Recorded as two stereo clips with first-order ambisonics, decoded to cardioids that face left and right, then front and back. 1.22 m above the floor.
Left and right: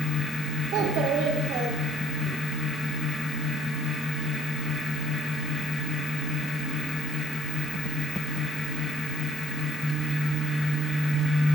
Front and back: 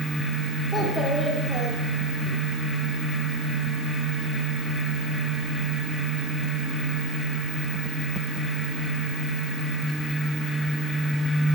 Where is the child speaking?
65° right, 1.9 m; by 2.3 s 90° right, 2.5 m.